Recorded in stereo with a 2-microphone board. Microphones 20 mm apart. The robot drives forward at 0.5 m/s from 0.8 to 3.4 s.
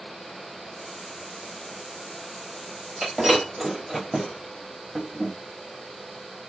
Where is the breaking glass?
Centre (ahead or behind), 1.9 m.